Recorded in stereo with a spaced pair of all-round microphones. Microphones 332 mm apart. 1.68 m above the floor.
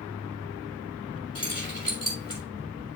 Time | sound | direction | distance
1.4 | keys jangling | 15° left (ahead or behind) | 4.5 m